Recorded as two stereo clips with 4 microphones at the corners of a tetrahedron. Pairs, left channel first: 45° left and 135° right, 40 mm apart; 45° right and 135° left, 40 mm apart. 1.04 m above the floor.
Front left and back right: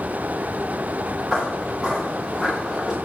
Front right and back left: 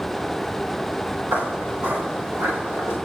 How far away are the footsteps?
About 9 m.